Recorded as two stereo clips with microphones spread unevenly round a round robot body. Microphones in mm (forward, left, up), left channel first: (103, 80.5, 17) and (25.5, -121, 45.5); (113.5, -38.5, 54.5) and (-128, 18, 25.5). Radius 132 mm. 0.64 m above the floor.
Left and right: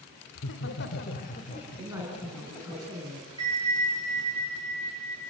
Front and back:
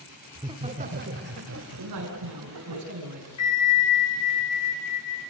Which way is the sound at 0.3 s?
90° left.